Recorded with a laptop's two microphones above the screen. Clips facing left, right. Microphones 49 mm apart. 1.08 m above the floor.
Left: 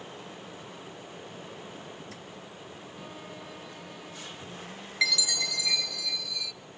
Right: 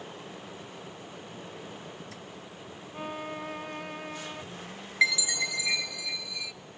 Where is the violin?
50° right (ahead or behind), 0.6 m.